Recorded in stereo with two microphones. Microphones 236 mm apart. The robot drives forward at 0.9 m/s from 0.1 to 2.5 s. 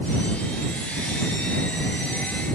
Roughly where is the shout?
No shout in this recording.